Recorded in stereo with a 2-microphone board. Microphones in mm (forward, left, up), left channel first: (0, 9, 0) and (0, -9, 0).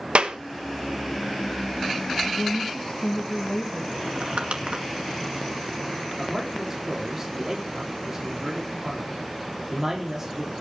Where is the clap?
70° right (ahead or behind), 1.2 m.